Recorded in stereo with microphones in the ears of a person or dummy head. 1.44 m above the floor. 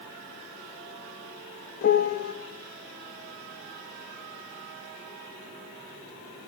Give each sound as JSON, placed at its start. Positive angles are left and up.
{"t": 1.8, "sound": "a piano", "side_deg": 50, "distance_m": 1.5}